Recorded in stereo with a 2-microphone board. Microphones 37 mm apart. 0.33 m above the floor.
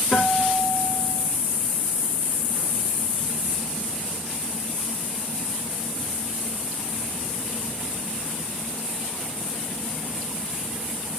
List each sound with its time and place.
0.1 s a guitar: 65° left (ahead or behind), 5.5 m